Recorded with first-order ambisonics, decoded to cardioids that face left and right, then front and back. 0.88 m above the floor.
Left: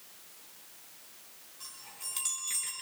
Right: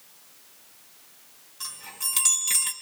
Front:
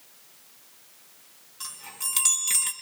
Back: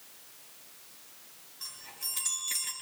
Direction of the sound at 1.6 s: 35° right.